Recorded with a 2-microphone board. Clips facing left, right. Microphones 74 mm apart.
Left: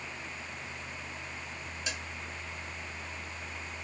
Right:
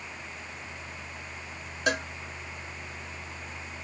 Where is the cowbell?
60° right (ahead or behind).